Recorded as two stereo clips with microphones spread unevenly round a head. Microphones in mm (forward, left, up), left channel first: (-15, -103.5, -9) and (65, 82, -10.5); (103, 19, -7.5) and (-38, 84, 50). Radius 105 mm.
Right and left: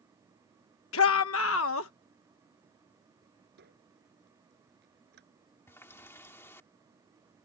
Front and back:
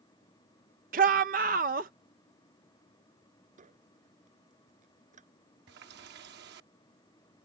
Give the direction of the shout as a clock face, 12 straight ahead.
5 o'clock.